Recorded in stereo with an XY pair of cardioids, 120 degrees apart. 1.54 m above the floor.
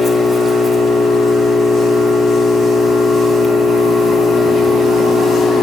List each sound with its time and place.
0.0 s an engine running: 20° left, 1.3 m